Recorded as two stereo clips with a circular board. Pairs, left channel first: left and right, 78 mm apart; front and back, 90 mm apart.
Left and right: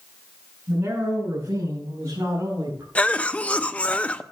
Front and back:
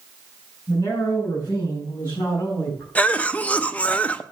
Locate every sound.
0.7 s a man speaking: 30° right, 6 m; by 2.9 s 50° right, 5 m
3.0 s a cough: 45° left, 0.6 m